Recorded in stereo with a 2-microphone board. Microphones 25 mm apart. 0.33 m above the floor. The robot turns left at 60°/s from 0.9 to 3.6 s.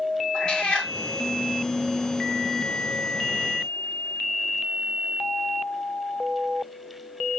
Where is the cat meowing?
30° left (ahead or behind), 1.3 m.